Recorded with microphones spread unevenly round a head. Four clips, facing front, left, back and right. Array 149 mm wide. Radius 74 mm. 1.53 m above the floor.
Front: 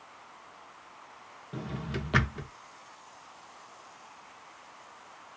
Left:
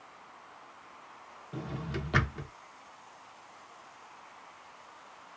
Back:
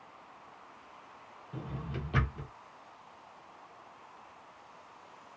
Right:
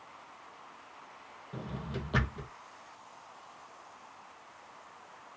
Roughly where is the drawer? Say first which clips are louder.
Left 2 dB, front 4 dB; ahead.